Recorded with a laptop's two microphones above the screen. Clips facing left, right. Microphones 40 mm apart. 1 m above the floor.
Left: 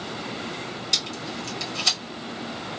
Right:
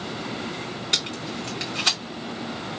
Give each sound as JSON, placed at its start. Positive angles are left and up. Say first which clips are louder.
{"t": 0.9, "sound": "tape being pulled", "louder": "right 2 dB", "side_deg": -35, "distance_m": 1.5}